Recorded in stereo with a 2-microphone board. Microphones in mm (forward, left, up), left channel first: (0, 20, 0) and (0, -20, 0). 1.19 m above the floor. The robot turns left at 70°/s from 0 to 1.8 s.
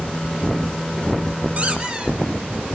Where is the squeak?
40° right (ahead or behind), 4.5 m; by 2.1 s 25° right (ahead or behind), 4.5 m.